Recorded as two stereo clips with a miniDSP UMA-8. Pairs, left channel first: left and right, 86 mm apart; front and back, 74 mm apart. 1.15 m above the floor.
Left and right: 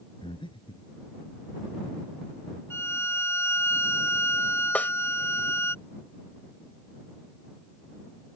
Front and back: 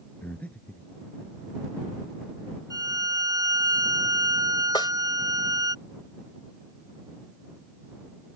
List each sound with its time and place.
0.2 s breathing: 70° left
2.7 s a violin: 150° left
4.8 s a snare drum: 15° left